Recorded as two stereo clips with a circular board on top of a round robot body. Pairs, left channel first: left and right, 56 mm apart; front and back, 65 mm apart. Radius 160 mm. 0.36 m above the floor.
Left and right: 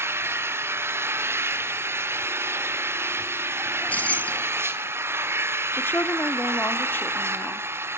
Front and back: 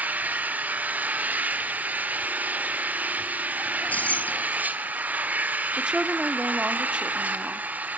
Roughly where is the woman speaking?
Behind left.